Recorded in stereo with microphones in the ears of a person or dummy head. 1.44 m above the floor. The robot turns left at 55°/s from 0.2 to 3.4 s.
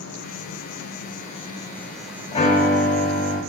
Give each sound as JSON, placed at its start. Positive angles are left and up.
{"t": 0.0, "sound": "an insect", "azimuth_deg": 105, "distance_m": 1.4}
{"t": 2.3, "sound": "a piano", "azimuth_deg": 160, "distance_m": 3.5}